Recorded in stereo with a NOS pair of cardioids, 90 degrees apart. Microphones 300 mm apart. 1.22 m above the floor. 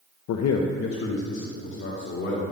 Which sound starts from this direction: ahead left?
A man speaking, at 0.3 s.